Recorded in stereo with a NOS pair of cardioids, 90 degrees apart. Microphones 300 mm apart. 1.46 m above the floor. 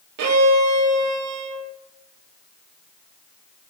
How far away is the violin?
About 1.4 m.